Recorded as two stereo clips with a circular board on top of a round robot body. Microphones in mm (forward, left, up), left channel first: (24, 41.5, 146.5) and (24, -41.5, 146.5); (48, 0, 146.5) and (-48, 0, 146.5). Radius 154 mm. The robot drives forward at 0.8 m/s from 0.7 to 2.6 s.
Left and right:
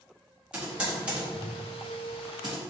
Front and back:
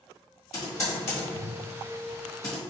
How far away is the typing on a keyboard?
About 1.7 m.